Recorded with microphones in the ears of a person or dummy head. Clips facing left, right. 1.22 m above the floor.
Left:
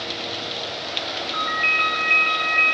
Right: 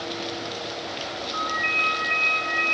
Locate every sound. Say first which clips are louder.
1.3 s a ringtone: left 1 dB; 40° left (ahead or behind), 1.2 m